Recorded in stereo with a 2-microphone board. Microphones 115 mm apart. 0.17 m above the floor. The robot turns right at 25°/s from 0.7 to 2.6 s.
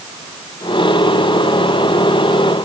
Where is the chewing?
I don't hear chewing.